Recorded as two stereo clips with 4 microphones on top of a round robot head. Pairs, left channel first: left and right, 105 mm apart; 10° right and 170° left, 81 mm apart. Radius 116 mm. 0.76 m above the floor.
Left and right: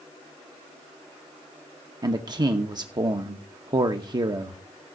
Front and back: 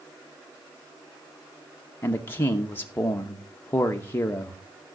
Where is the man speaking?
60° right, 1.1 m.